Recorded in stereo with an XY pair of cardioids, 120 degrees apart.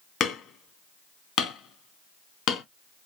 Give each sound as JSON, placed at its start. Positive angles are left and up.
{"t": 0.2, "sound": "hammering", "azimuth_deg": 60, "distance_m": 1.7}